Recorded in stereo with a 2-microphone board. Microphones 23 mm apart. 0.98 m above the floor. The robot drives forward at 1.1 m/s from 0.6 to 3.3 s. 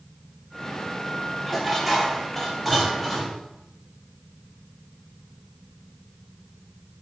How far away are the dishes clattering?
About 1.9 m.